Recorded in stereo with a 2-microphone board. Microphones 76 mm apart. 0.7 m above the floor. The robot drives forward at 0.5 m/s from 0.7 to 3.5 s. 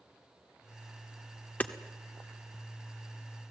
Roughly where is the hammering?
Left.